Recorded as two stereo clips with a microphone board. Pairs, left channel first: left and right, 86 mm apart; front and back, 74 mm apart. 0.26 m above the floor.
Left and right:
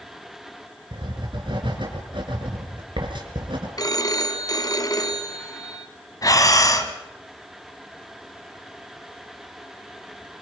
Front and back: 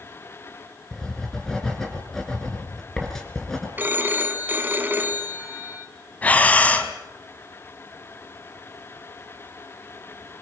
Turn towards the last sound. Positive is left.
turn(degrees=65)